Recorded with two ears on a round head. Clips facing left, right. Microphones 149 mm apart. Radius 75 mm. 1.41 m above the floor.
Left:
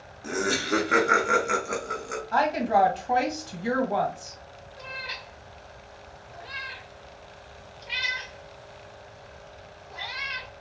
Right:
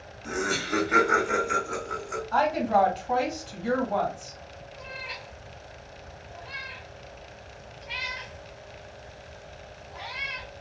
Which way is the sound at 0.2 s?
40° left (ahead or behind).